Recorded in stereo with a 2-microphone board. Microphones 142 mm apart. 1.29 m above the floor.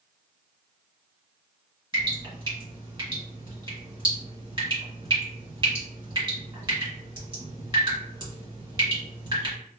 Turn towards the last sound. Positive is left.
turn(degrees=-35)  # may be behind; listen again after turning